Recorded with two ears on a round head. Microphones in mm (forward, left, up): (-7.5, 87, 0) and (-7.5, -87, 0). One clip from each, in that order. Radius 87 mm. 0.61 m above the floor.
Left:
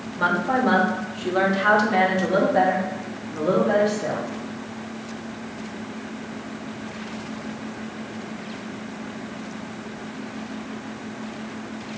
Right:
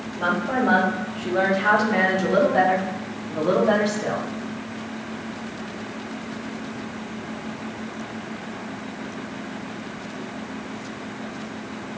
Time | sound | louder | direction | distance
0.2 | a woman speaking | left 2 dB | 40° left (ahead or behind) | 1.6 m